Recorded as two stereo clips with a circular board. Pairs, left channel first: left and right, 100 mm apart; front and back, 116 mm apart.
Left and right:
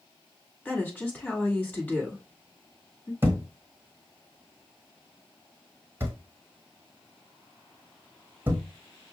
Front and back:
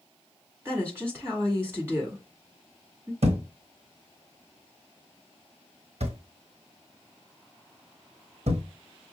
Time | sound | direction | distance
0.7 | a woman speaking | 140° left | 1.7 m
3.2 | a thud | 160° right | 0.9 m